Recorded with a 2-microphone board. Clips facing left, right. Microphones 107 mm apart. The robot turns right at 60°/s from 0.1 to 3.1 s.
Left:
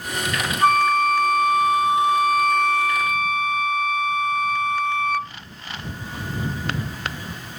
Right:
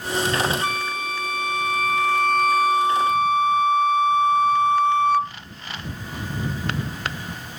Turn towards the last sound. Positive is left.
turn(degrees=-140)